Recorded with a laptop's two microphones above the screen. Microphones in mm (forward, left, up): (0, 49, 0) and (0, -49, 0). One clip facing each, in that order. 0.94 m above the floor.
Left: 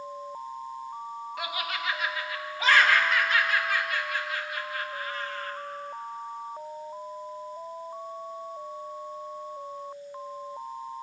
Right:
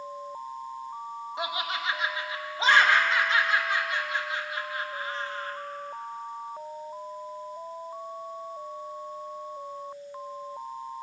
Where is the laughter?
20° right (ahead or behind), 1.0 m.